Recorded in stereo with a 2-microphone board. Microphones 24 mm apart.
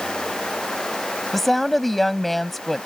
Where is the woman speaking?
10° left (ahead or behind).